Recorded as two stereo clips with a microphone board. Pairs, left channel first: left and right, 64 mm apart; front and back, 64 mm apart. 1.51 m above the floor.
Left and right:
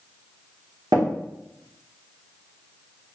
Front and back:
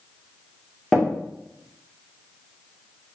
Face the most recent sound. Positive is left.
turn(degrees=-90)